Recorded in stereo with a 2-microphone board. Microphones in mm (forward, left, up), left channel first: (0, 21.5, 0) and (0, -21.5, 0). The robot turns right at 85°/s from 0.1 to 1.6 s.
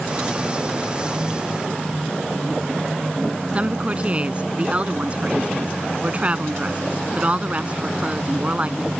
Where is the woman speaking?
30° right (ahead or behind).